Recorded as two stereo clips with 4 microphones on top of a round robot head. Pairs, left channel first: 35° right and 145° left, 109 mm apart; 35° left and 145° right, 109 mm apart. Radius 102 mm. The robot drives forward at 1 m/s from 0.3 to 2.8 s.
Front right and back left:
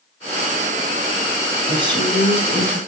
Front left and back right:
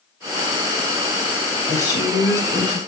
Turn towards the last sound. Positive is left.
turn(degrees=110)